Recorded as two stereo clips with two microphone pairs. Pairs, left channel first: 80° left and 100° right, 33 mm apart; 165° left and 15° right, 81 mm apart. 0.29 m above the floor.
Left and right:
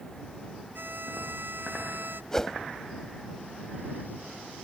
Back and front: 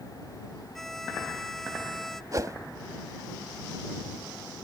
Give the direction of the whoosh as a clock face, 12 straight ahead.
12 o'clock.